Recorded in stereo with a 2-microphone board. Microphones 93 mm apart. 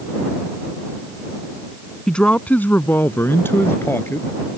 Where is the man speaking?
10° left (ahead or behind); by 4.3 s 25° left (ahead or behind).